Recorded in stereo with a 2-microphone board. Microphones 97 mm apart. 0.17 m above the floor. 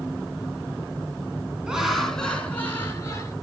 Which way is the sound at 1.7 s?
10° right (ahead or behind).